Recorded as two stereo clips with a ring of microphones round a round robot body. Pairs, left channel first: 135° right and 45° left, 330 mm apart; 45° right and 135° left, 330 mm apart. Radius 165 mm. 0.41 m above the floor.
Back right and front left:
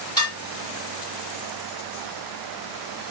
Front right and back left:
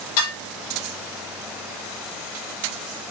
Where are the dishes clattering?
55° right, 9.5 m.